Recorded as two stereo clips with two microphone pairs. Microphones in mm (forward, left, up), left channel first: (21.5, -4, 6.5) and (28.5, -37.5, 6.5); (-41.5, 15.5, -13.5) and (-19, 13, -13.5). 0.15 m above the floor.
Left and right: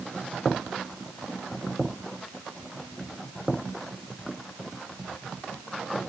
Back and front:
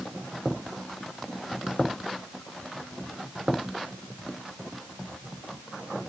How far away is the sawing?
No sawing in this recording.